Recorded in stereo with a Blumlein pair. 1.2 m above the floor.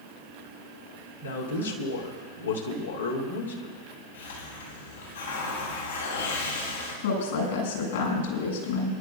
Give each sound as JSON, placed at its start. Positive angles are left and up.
{"t": 1.2, "sound": "a man speaking", "azimuth_deg": 70, "distance_m": 3.0}
{"t": 4.1, "sound": "a hiss", "azimuth_deg": 70, "distance_m": 8.5}
{"t": 7.0, "sound": "a woman speaking", "azimuth_deg": 60, "distance_m": 8.5}